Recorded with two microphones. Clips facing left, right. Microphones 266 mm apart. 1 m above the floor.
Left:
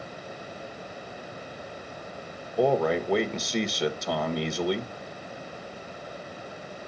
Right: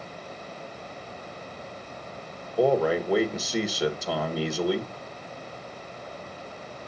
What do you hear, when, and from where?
2.6 s a man speaking: 5° right (ahead or behind), 1.3 m